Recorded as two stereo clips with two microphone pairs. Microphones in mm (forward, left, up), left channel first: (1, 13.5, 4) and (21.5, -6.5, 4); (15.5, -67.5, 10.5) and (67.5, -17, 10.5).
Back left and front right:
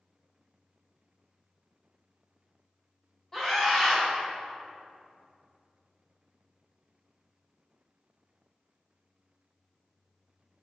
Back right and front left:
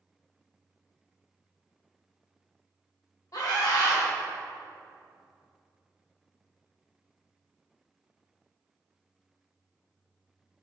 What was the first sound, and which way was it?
A scream, 150° right.